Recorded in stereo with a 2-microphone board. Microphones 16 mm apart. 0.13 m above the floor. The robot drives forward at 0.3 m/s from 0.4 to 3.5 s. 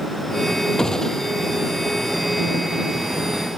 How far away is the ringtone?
I don't hear a ringtone.